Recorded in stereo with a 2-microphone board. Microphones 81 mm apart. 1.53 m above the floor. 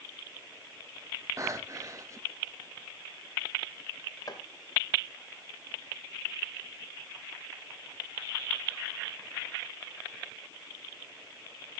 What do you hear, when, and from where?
1.4 s breathing: 35° right (ahead or behind), 1.1 m
4.3 s chopping: 45° left (ahead or behind), 2.5 m